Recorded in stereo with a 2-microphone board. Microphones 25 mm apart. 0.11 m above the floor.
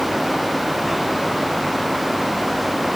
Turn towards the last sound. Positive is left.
No sound to turn to.